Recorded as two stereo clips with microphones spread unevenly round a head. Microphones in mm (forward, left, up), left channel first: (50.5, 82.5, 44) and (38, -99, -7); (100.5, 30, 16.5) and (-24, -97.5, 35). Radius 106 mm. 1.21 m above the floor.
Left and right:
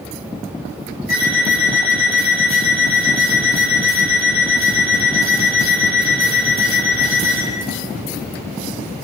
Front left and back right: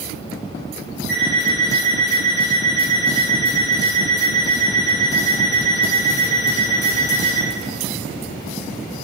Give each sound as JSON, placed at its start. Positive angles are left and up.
{"t": 1.1, "sound": "an alarm clock", "azimuth_deg": 140, "distance_m": 5.0}